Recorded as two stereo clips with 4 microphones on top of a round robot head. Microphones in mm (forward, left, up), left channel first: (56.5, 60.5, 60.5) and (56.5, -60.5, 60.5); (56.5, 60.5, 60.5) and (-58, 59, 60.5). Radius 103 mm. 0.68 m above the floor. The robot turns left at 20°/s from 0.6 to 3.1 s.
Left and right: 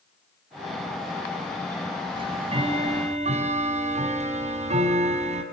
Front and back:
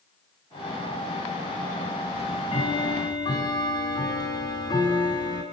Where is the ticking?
45° right, 6.5 m; by 5.4 s 65° right, 6.5 m.